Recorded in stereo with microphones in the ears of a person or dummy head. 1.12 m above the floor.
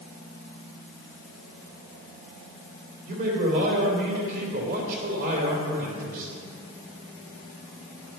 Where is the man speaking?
50° right (ahead or behind), 3 m.